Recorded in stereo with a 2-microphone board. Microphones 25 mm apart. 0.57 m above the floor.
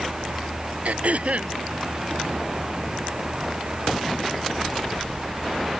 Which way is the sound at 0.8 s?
55° right (ahead or behind).